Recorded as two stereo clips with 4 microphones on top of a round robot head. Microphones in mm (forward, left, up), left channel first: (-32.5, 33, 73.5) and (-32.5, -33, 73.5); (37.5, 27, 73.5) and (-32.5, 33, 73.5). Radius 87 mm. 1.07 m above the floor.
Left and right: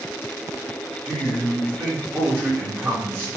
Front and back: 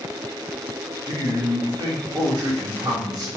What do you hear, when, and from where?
1.1 s a man speaking: 145° right, 3 m